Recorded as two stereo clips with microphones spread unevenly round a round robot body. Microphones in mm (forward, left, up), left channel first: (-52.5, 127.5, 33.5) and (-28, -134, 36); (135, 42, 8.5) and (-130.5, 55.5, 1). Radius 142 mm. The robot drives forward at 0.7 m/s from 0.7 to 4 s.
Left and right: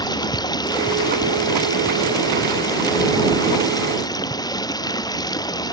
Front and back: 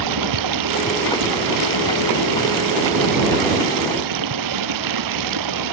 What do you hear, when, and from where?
0.0 s running water: 170° left